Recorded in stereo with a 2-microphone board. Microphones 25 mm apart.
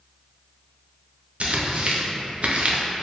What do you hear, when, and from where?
1.4 s tearing paper: 55° right (ahead or behind), 0.6 m